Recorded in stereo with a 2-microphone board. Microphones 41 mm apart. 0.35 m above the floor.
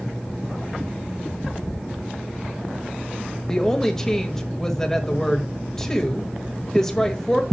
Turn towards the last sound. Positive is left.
turn(degrees=15)  # may be behind; listen again after turning